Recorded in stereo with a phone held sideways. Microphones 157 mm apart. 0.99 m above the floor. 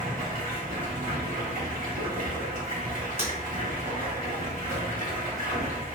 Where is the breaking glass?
70° right (ahead or behind), 1.7 m.